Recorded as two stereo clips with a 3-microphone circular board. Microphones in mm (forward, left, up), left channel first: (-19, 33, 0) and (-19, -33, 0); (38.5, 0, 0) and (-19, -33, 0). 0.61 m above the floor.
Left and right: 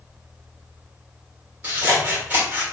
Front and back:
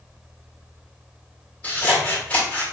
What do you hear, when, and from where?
1.6 s scissors: 30° right, 2.5 m